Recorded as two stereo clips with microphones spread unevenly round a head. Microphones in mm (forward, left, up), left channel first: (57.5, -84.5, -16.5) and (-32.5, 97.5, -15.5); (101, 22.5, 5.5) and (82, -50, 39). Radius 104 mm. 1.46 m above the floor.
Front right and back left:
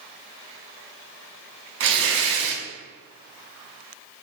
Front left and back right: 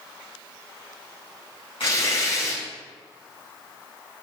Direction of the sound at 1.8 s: 140° left.